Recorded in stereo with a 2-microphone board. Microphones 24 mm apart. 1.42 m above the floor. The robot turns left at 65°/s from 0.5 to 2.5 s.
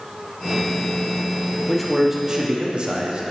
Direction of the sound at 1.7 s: 15° left.